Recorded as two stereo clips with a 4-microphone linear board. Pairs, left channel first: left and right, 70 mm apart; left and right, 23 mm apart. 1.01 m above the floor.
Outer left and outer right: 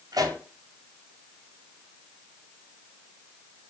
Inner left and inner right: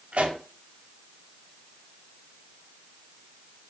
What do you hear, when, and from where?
0.1 s a pop: 70° right (ahead or behind), 5 m